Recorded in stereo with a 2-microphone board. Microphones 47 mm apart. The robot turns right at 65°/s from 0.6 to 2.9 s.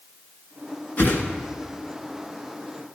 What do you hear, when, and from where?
1.0 s a whoosh: 40° left (ahead or behind), 1.4 m; by 1.2 s 45° left (ahead or behind), 1.4 m